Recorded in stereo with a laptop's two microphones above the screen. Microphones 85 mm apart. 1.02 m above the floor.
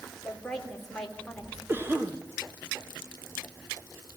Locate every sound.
0.2 s a woman speaking: 5° left (ahead or behind), 3 m
1.7 s a cough: 25° right (ahead or behind), 1.2 m